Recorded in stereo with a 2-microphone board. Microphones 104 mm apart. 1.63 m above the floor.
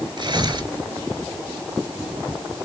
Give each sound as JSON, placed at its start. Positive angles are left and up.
{"t": 0.2, "sound": "tearing paper", "side_deg": -45, "distance_m": 4.0}